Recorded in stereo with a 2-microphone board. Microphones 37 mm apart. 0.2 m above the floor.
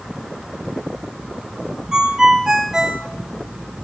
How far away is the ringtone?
About 0.8 m.